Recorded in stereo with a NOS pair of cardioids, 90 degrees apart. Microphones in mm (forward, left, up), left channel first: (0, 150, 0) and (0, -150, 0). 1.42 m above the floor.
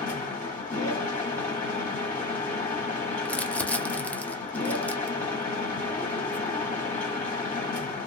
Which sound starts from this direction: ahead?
Crumpling, at 3.2 s.